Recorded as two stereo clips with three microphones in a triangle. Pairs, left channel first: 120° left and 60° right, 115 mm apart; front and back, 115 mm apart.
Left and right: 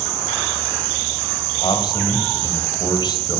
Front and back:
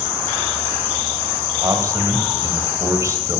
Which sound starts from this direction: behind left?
A man speaking, at 1.6 s.